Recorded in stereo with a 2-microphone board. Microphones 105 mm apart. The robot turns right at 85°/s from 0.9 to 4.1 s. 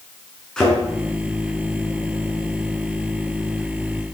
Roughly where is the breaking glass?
No breaking glass in this recording.